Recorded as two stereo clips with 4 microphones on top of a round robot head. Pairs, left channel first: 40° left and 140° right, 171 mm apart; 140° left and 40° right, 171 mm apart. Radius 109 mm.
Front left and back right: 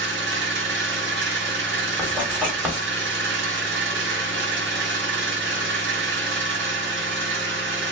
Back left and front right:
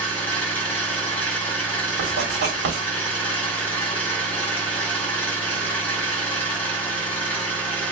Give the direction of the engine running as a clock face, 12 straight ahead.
5 o'clock.